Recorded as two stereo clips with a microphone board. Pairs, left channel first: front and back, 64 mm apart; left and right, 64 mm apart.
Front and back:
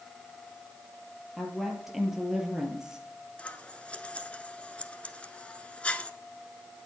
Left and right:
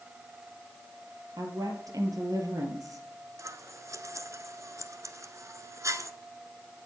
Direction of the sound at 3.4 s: 70° right.